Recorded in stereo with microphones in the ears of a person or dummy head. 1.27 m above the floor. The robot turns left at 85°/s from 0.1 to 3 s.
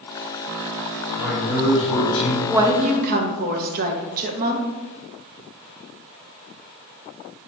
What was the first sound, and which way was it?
A man speaking, 175° left.